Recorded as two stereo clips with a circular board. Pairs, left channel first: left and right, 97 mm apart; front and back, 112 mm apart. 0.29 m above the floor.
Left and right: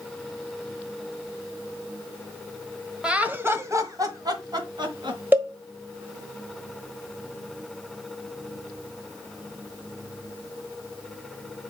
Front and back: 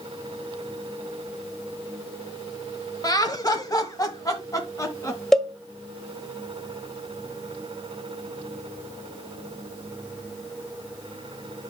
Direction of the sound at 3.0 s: 15° right.